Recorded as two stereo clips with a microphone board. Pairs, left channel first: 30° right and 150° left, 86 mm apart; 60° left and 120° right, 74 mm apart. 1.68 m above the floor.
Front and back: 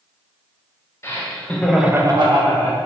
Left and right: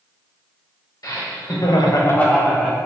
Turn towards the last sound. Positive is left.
turn(degrees=160)